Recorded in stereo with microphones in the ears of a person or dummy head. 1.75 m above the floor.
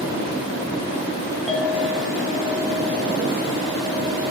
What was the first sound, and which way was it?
A clink, 5° left (ahead or behind).